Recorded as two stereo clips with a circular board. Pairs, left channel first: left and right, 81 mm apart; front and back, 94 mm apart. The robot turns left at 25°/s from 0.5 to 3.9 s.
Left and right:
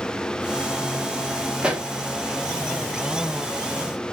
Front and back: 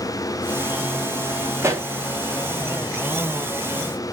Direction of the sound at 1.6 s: 155° right.